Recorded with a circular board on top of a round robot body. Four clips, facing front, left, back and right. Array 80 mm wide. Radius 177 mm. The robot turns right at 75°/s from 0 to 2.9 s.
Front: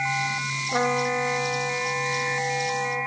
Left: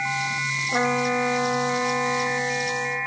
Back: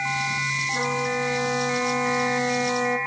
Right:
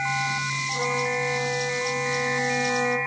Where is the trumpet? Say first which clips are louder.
Left 5 dB, front 4 dB; 40° left, 1.9 m; by 3.0 s 155° right, 1.9 m.